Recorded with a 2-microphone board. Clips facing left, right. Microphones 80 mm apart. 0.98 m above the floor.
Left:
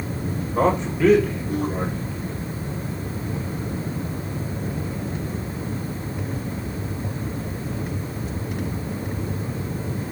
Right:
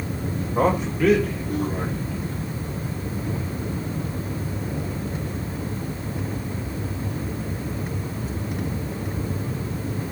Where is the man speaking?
5° right (ahead or behind), 3 m; by 2.5 s 15° left (ahead or behind), 3.5 m.